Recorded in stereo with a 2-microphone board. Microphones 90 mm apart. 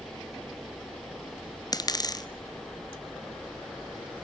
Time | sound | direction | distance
1.7 | a dropped coin | 45° left (ahead or behind) | 1.3 m